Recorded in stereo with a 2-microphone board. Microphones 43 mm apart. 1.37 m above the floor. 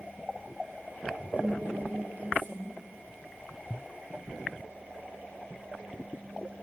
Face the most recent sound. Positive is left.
turn(degrees=-45)  # may be behind; listen again after turning